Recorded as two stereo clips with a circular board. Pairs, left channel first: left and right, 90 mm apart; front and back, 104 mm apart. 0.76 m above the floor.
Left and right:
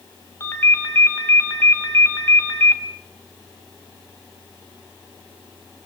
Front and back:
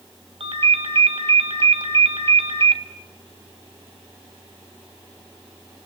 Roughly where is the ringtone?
Behind left.